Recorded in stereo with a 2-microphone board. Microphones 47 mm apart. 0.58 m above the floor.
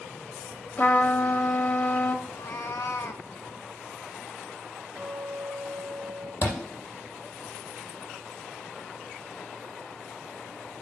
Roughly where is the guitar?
Right.